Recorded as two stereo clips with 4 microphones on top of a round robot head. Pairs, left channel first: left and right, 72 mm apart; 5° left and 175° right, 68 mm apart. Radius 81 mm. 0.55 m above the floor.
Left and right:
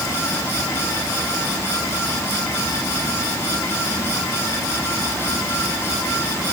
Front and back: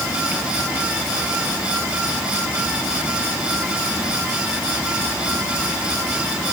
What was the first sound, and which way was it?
Only background noise.